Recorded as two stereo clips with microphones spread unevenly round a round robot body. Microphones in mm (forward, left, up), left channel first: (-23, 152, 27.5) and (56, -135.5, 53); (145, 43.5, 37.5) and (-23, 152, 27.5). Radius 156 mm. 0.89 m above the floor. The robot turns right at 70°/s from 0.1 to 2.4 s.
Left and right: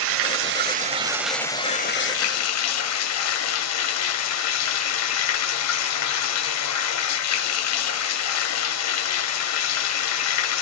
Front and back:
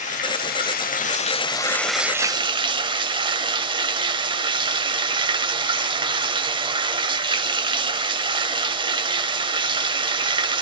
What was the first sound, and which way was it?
Running water, 75° right.